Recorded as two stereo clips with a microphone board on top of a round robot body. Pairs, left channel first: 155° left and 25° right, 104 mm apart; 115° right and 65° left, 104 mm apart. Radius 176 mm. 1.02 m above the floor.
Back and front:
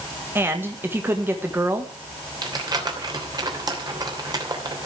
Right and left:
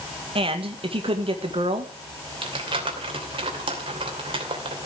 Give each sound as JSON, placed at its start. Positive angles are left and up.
{"t": 0.3, "sound": "a man speaking", "azimuth_deg": 45, "distance_m": 1.7}
{"t": 2.4, "sound": "crumpling", "azimuth_deg": 30, "distance_m": 3.0}